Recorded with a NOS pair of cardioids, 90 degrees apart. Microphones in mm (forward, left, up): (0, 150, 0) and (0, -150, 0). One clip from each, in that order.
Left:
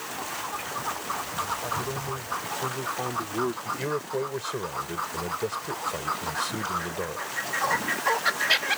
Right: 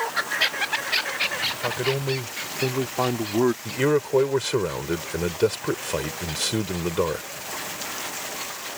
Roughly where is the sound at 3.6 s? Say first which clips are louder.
Right 7 dB; ahead right.